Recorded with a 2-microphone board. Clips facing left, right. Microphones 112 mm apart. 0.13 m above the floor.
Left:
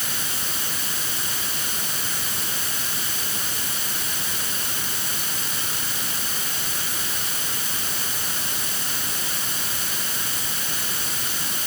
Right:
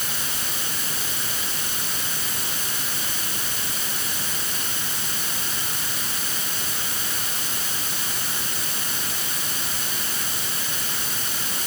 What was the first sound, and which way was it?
Only background noise.